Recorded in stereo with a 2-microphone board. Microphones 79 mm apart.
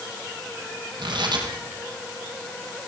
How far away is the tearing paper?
About 6 m.